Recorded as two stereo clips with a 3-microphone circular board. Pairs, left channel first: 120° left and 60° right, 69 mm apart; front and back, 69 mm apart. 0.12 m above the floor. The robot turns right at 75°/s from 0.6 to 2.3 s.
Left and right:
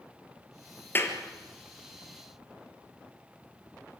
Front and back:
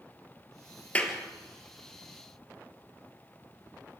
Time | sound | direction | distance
0.9 | a clap | 65° left | 2.5 m